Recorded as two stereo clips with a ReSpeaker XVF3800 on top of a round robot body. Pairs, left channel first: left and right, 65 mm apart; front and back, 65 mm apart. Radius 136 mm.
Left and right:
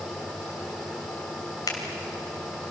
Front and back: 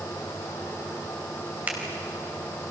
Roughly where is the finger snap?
Behind left.